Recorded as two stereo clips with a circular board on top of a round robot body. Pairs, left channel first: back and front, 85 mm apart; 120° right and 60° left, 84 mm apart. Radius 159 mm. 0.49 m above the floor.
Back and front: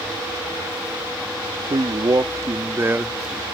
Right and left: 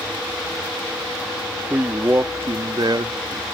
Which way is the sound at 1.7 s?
5° right.